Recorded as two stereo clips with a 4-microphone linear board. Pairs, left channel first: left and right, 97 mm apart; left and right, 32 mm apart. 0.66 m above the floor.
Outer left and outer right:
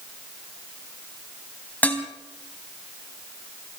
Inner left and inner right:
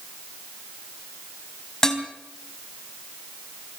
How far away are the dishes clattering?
About 3.5 m.